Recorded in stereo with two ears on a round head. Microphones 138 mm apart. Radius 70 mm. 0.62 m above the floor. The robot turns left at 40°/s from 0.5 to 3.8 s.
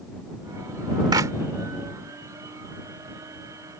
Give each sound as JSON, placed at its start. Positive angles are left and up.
{"t": 1.1, "sound": "a clap", "side_deg": -25}